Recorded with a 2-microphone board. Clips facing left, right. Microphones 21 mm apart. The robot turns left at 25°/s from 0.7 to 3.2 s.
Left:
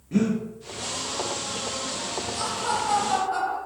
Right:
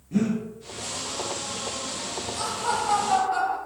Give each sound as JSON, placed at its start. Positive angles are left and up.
{"t": 0.1, "sound": "breathing", "side_deg": 25, "distance_m": 0.9}
{"t": 2.4, "sound": "laughter", "side_deg": 5, "distance_m": 1.3}